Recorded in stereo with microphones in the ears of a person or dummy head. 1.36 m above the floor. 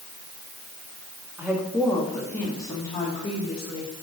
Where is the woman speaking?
10° right (ahead or behind), 1.8 m; by 4.0 s 35° left (ahead or behind), 3 m.